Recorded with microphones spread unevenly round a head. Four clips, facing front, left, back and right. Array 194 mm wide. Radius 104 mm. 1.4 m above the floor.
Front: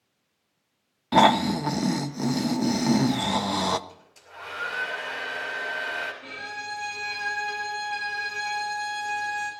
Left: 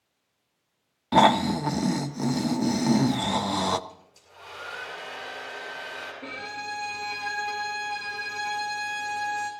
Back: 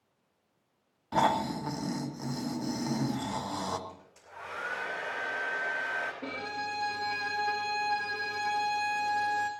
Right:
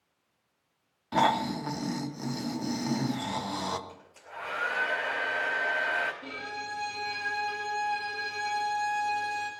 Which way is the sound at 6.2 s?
160° left.